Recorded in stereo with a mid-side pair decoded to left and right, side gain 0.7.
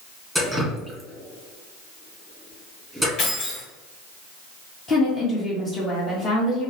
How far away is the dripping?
About 1.5 m.